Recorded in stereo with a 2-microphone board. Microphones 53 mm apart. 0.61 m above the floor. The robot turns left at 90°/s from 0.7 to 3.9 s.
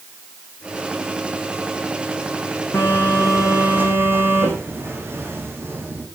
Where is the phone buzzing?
55° left, 5.5 m; by 6.1 s 50° right, 5.5 m.